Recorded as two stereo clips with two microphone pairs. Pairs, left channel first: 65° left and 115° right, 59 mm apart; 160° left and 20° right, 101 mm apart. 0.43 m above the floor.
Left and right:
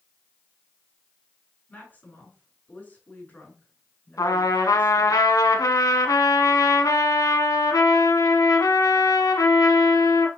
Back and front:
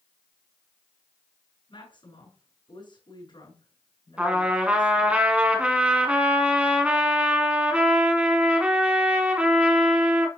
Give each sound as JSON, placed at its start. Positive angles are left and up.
{"t": 1.7, "sound": "a woman speaking", "azimuth_deg": 125, "distance_m": 5.5}
{"t": 4.2, "sound": "a trumpet", "azimuth_deg": 60, "distance_m": 1.2}